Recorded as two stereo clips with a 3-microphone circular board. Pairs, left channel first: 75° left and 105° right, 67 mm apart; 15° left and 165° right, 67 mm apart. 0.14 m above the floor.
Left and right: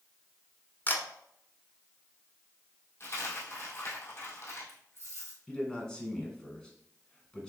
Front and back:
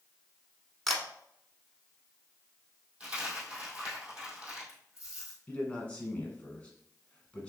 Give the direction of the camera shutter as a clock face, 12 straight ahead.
9 o'clock.